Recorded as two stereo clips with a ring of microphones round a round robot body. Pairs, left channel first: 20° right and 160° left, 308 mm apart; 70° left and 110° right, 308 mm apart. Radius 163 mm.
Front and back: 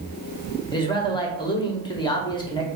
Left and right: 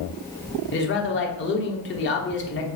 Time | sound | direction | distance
0.7 | a man speaking | 45° left | 1.0 m